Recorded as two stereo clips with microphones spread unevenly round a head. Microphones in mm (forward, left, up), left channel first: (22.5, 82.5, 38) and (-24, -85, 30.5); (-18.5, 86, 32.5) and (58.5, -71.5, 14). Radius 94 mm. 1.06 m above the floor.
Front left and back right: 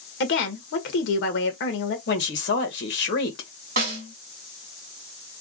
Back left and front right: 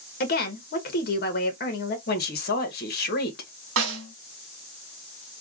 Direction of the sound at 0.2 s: 80° left.